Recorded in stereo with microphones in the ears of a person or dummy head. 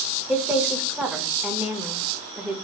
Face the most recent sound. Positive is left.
turn(degrees=0)  # may be behind; listen again after turning